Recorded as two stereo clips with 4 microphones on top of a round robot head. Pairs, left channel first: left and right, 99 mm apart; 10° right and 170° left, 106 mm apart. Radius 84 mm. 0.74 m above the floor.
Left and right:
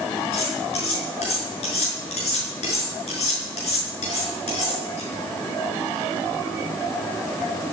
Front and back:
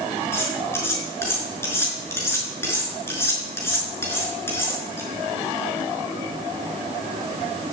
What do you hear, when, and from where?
0.3 s cutlery clinking: 60° left, 5.5 m